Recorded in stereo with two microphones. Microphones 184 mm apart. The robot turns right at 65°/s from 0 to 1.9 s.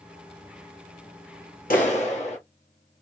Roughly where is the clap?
Left.